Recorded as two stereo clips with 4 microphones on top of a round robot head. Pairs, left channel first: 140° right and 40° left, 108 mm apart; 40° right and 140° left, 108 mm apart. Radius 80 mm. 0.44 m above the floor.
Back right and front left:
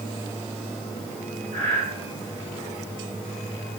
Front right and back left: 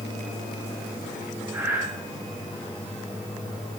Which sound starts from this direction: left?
Breathing, at 1.5 s.